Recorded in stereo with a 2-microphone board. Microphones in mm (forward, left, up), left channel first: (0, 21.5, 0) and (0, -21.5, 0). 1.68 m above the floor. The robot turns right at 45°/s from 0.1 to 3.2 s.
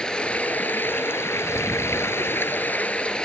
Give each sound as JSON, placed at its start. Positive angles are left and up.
{"t": 0.0, "sound": "running water", "azimuth_deg": 20}